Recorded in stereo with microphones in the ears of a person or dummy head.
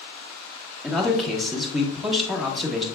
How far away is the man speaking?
About 1.3 m.